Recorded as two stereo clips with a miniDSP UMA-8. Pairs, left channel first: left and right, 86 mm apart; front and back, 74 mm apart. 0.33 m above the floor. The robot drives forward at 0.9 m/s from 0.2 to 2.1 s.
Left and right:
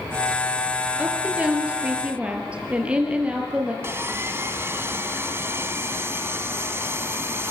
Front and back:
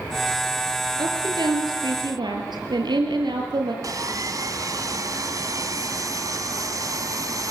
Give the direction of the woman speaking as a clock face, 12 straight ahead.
5 o'clock.